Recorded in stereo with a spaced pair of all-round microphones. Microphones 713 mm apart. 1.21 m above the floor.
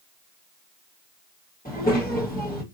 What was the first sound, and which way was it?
A child speaking, 10° left (ahead or behind).